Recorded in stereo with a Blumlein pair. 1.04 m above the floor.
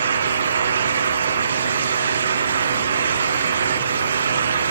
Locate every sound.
0.0 s a fan: 70° right, 1.0 m